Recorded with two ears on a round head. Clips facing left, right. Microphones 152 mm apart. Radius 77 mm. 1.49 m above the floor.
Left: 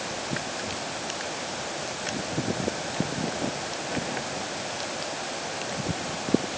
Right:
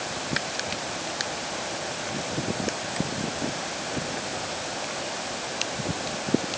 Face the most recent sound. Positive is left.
No sound to turn to.